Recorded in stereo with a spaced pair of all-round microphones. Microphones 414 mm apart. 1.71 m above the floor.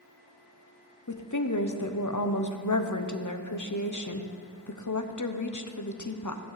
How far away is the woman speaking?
About 0.9 m.